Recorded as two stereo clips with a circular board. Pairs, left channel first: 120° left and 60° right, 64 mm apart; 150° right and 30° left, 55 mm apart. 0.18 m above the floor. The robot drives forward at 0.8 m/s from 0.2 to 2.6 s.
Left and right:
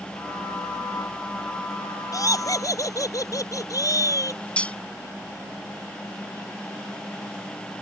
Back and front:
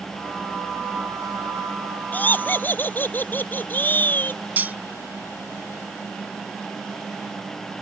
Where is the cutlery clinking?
65° left.